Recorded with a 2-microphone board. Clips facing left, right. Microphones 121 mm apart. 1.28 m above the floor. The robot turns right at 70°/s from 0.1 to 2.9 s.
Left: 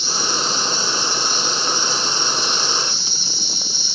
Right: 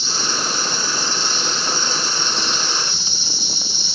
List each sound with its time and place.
0.0 s an insect: 50° left, 0.9 m; by 4.0 s 115° right, 0.9 m